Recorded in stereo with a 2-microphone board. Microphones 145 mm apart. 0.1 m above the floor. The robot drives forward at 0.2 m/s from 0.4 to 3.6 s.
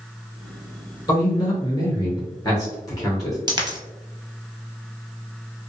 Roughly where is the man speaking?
Left.